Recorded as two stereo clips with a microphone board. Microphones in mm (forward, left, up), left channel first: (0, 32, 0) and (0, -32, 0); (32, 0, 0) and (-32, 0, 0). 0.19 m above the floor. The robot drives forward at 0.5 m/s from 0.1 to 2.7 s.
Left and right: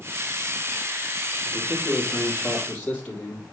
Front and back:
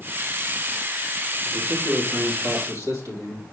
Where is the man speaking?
155° left, 3.5 m; by 3.4 s 160° left, 4 m.